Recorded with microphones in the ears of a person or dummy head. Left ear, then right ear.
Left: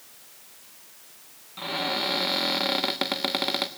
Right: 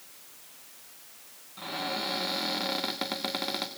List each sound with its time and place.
1.6 s a cupboard door: 20° left (ahead or behind), 1.5 m